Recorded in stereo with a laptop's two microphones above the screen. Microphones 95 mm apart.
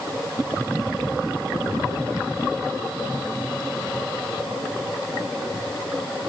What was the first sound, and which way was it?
Only background noise.